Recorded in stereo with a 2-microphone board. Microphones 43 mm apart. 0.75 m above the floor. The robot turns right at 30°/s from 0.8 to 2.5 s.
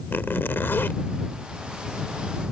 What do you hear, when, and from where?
0.1 s a zipper: 65° left (ahead or behind); by 1.0 s 60° left (ahead or behind)